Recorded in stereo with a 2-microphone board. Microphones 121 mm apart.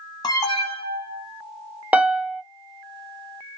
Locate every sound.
0.2 s an alarm: 35° left (ahead or behind), 1.2 m
1.9 s a piano: 15° right (ahead or behind), 0.6 m